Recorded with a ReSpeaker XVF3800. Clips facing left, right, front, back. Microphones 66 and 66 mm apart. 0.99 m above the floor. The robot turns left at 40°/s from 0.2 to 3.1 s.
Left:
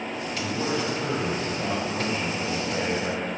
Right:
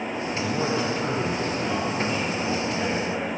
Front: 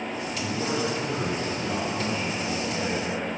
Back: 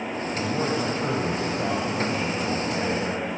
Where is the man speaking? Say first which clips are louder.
Right 2 dB, back 3 dB; 135° right, 4 m; by 3.2 s 115° left, 4 m.